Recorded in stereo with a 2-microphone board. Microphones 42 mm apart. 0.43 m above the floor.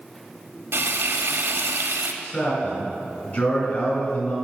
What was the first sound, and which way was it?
Frying, 65° right (ahead or behind).